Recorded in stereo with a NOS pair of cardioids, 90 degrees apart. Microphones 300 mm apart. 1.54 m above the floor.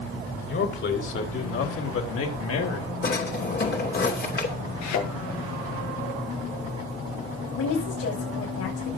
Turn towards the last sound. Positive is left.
turn(degrees=55)